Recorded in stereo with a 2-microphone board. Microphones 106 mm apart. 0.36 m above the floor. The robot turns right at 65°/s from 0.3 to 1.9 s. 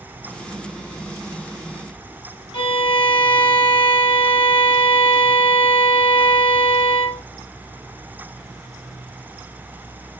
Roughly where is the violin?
Left.